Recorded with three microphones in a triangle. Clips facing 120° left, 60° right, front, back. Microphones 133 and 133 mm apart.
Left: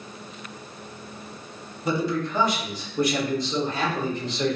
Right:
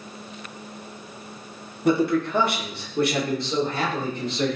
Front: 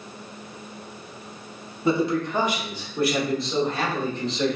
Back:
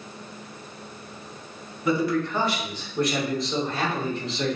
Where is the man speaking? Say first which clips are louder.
Right 5 dB, front 1 dB; 55° right, 0.8 m; by 4.6 s 95° right, 2 m.